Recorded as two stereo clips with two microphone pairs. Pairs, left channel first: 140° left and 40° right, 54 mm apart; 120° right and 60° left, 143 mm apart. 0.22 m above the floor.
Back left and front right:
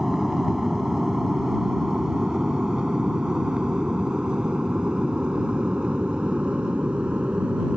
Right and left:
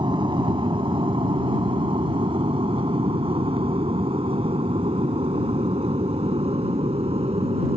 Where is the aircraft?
40° left; by 7.8 s 25° left.